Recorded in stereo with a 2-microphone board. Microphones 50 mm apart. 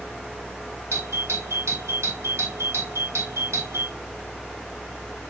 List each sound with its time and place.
0.9 s a doorbell: 70° right (ahead or behind), 4.5 m